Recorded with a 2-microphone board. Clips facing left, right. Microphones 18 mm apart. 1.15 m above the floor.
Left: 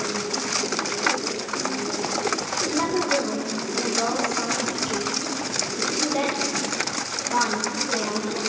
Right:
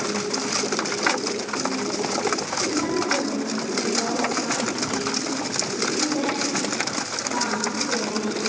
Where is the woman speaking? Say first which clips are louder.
Left 2 dB; 80° left, 3.5 m.